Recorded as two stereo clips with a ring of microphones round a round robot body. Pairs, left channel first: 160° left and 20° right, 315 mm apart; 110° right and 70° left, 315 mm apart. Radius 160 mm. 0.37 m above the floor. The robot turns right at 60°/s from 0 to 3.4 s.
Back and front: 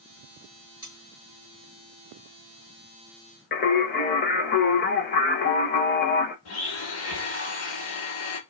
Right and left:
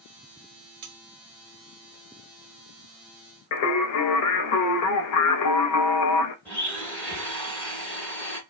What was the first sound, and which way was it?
Cutlery clinking, 50° left.